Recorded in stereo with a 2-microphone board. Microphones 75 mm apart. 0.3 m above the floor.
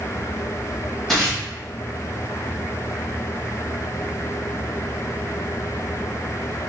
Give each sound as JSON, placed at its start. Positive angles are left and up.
{"t": 1.1, "sound": "tearing paper", "side_deg": 5, "distance_m": 1.2}